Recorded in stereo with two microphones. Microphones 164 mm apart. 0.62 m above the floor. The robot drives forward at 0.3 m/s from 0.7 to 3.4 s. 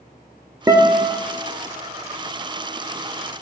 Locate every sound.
0.7 s a guitar: 20° right (ahead or behind), 0.5 m; by 1.2 s 15° right (ahead or behind), 0.7 m